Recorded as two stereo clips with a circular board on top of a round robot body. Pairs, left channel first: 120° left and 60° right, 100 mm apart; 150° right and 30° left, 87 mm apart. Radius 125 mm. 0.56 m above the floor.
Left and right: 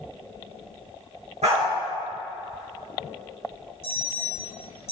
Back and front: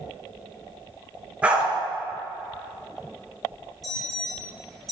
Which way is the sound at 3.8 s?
120° left.